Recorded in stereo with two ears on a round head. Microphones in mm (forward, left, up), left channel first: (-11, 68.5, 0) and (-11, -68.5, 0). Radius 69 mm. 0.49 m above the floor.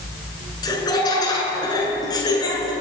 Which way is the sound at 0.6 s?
30° left (ahead or behind).